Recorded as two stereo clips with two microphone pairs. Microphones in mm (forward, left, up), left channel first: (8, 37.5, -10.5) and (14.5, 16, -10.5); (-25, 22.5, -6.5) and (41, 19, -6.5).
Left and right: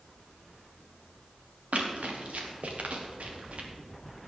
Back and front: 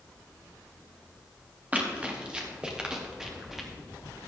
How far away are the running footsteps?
About 3 m.